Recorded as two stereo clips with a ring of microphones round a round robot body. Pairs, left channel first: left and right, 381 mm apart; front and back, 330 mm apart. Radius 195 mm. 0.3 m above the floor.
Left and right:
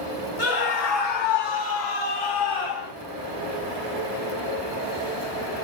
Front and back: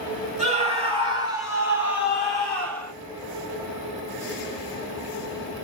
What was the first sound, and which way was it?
A scream, 110° left.